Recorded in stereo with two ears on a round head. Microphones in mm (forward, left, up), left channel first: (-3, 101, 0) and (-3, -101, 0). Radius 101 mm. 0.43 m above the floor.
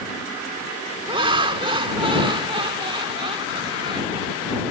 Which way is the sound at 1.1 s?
25° right (ahead or behind).